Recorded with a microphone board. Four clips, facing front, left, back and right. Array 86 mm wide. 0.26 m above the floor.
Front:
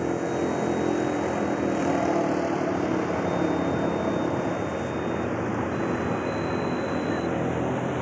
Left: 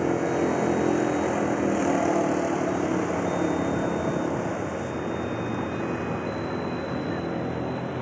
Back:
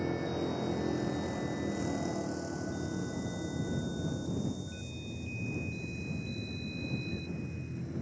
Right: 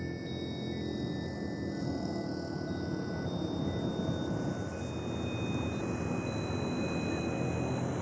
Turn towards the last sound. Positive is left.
turn(degrees=15)